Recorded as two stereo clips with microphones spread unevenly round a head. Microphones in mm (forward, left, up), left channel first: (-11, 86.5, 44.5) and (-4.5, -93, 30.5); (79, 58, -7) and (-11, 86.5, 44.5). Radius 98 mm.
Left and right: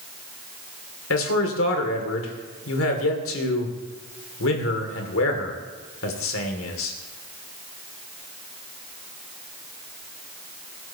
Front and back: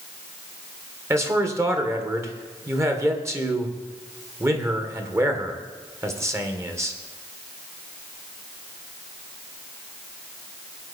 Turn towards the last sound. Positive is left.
turn(degrees=95)